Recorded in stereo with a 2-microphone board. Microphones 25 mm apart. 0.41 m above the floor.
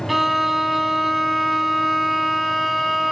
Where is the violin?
5° right (ahead or behind), 1.3 m.